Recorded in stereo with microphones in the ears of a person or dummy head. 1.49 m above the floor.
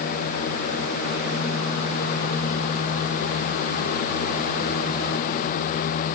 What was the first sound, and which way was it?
Only background noise.